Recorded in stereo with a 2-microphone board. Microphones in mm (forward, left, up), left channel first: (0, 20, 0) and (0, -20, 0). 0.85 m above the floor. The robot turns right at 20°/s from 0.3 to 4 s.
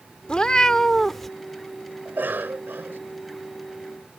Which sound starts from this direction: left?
A cat meowing, at 0.3 s.